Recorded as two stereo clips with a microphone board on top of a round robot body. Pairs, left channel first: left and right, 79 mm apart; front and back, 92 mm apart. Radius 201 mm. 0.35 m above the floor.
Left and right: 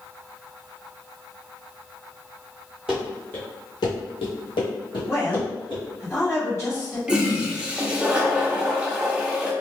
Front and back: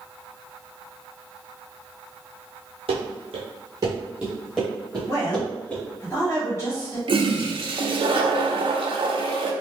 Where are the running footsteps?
170° right, 0.9 m; by 5.8 s 70° left, 2.0 m.